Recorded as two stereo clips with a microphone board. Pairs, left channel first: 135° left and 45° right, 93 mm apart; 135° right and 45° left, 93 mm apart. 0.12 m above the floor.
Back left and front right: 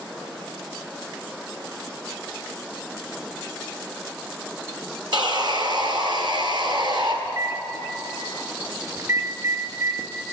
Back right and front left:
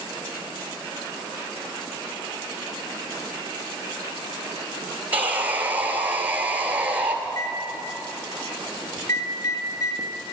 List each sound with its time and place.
5.1 s sawing: 25° right, 1.3 m
7.2 s a microwave: 95° right, 1.4 m